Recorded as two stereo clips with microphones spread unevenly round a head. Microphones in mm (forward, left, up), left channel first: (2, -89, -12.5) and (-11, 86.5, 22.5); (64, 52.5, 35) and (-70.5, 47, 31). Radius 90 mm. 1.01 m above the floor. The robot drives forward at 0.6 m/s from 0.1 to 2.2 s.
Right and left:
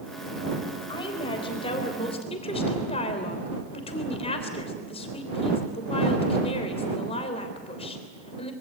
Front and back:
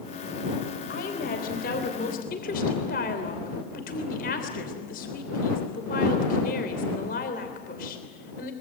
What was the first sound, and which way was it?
A woman speaking, 20° right.